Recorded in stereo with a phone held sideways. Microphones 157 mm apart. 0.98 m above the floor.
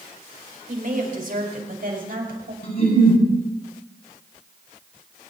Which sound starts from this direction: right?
A woman speaking, at 0.7 s.